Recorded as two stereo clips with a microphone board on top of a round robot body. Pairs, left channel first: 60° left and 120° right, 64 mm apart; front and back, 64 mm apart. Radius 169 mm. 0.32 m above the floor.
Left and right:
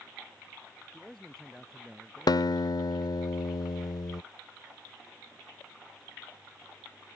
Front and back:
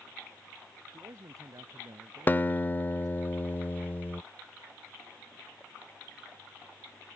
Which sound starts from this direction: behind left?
A man speaking, at 0.9 s.